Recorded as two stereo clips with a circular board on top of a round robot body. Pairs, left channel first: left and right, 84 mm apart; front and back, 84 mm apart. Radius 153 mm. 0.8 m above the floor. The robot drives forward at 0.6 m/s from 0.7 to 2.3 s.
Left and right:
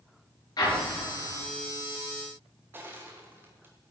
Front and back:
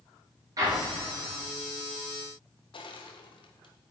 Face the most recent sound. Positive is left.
turn(degrees=-20)